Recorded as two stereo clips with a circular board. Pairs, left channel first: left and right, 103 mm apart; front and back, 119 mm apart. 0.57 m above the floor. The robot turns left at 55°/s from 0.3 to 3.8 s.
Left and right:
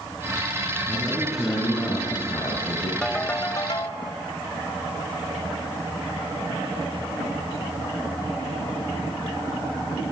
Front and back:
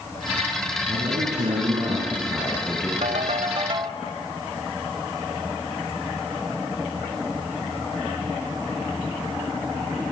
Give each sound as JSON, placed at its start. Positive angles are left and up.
{"t": 0.9, "sound": "a man speaking", "azimuth_deg": -155, "distance_m": 5.5}
{"t": 3.0, "sound": "a ringtone", "azimuth_deg": 175, "distance_m": 1.4}